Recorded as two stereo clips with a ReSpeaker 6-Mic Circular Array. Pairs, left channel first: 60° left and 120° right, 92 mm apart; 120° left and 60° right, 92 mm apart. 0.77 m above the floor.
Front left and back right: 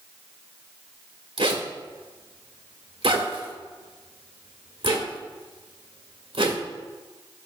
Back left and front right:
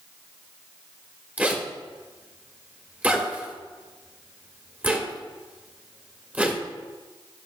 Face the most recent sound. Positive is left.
turn(degrees=-135)